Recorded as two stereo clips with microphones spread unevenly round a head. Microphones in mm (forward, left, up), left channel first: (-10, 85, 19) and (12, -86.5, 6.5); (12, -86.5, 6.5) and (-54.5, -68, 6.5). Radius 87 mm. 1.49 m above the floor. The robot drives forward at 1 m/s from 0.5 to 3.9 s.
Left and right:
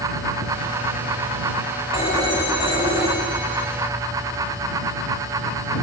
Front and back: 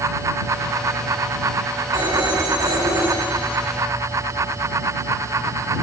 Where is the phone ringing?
155° left, 6.5 m; by 3.7 s 160° left, 8 m.